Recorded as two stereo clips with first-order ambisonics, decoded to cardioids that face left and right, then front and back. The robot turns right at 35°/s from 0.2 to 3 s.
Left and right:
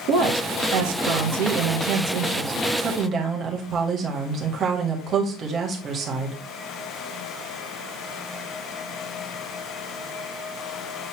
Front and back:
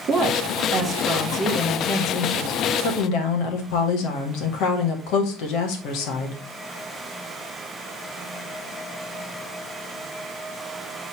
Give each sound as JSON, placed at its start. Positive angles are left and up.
{"t": 0.1, "sound": "a woman speaking", "azimuth_deg": -125, "distance_m": 1.8}